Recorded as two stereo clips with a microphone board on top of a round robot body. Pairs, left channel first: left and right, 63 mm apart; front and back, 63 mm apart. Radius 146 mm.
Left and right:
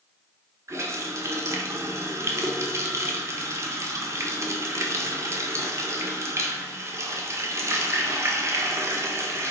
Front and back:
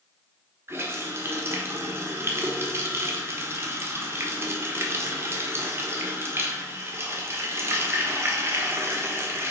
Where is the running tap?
130° right, 1.2 m.